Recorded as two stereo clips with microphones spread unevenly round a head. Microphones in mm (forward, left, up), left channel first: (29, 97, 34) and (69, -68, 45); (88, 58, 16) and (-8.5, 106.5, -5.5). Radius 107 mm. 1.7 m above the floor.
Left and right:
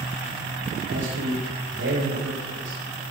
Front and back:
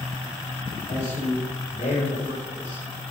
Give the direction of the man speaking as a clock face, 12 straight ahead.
3 o'clock.